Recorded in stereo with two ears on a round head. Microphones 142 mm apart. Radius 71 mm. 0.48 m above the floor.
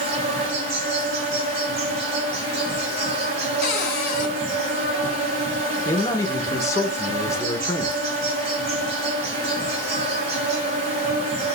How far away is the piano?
I don't hear a piano.